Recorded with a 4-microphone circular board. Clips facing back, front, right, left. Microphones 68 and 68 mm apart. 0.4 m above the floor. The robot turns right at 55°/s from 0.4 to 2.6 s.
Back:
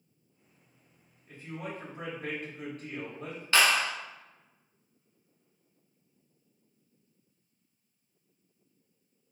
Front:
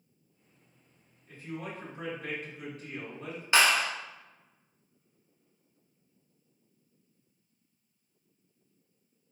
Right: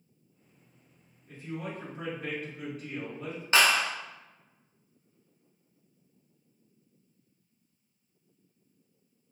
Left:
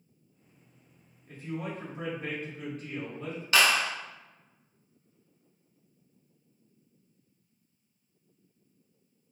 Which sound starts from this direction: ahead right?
A clap, at 3.5 s.